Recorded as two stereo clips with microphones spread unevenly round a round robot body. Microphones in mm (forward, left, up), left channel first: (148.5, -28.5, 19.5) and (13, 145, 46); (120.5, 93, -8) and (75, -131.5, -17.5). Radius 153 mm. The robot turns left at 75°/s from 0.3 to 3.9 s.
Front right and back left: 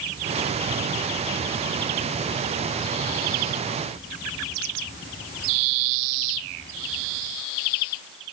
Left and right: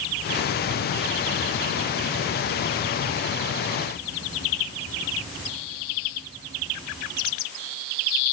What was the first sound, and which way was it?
Only background noise.